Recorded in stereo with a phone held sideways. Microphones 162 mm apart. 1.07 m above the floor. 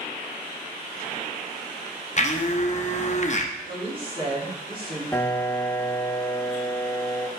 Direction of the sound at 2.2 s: 45° left (ahead or behind).